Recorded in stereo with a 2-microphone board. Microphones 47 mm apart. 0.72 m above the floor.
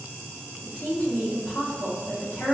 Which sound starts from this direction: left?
A woman speaking, at 0.6 s.